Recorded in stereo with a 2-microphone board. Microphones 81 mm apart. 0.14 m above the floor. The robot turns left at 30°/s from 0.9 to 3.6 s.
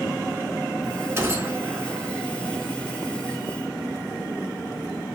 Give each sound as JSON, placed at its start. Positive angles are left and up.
{"t": 1.2, "sound": "a gunshot", "side_deg": -30, "distance_m": 1.1}